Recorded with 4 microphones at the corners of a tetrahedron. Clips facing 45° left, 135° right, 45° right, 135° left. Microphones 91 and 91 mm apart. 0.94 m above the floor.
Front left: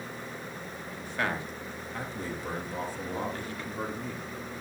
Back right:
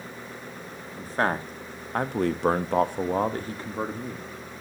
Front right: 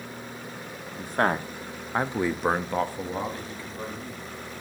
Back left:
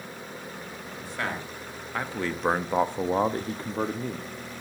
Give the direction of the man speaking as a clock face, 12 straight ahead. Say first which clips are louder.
Back right 6 dB, front right 8 dB; 3 o'clock.